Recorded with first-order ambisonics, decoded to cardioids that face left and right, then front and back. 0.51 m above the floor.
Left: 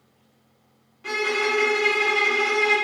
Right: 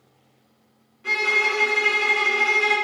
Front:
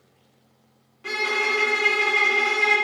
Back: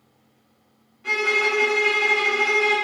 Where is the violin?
30° left, 0.9 m.